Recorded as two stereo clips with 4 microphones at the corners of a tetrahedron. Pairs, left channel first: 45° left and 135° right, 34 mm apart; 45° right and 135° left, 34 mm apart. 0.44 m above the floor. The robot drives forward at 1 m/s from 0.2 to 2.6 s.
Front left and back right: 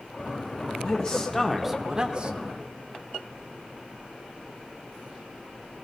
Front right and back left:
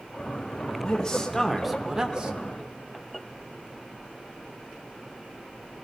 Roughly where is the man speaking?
Ahead.